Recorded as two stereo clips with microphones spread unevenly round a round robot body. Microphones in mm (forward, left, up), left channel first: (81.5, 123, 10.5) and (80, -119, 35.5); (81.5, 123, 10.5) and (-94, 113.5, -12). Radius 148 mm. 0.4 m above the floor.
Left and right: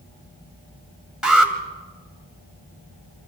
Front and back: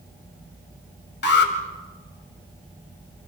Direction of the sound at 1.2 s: Straight ahead.